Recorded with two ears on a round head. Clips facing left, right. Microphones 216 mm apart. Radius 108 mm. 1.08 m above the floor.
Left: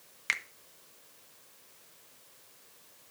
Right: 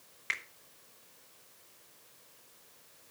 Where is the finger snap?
55° left (ahead or behind), 1.0 m.